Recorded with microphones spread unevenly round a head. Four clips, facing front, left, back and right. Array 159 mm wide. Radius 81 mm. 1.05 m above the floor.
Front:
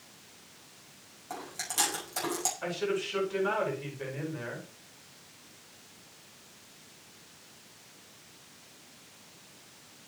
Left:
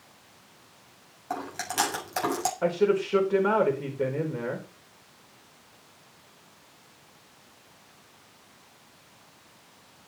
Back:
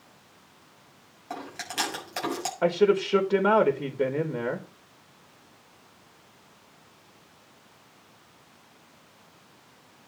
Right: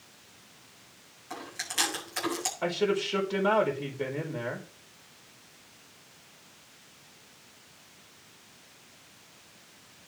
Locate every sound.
1.3 s chewing: 105° left, 7.5 m
2.6 s a man speaking: 165° left, 4.5 m